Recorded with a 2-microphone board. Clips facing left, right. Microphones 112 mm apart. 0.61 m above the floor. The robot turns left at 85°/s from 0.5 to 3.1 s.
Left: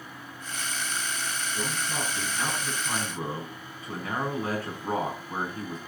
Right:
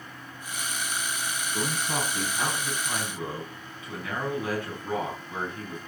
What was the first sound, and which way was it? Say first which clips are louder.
A man speaking: right 4 dB; 85° right.